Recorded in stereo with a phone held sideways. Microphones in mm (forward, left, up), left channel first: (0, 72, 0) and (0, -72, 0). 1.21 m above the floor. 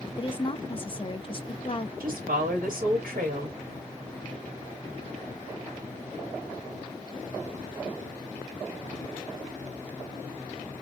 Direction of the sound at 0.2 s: 35° left (ahead or behind).